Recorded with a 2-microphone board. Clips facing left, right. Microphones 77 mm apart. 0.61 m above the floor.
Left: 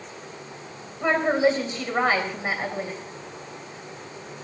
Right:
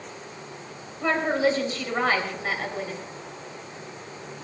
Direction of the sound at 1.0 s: 20° left (ahead or behind).